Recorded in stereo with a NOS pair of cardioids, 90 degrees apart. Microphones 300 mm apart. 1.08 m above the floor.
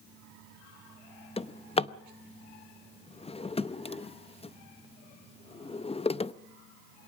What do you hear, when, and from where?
1.4 s a drawer: 20° left, 0.7 m